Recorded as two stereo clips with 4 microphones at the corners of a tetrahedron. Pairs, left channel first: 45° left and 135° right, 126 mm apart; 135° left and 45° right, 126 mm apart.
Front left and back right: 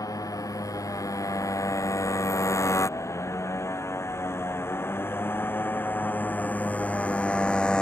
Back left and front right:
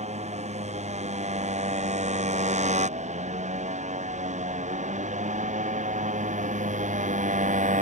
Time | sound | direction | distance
0.0 | a motorcycle | 20° right | ?